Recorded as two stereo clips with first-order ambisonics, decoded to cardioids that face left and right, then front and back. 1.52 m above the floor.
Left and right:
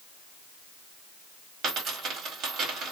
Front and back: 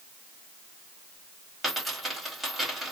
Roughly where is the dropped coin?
Right.